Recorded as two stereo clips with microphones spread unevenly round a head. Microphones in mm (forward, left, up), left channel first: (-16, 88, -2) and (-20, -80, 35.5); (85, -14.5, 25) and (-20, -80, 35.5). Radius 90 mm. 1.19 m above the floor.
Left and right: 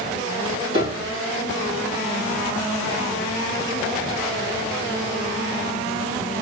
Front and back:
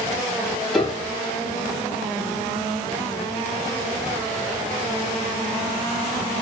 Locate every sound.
0.7 s a piano: 55° right, 1.5 m